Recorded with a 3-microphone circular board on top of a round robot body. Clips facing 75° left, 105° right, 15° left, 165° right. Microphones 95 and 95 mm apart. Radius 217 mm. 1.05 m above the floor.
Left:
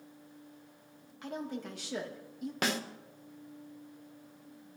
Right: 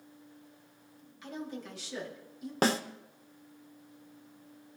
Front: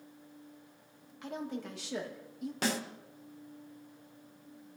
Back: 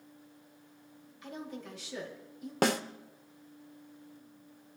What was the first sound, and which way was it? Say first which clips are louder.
A woman speaking: left 2 dB, front 4 dB; 40° left.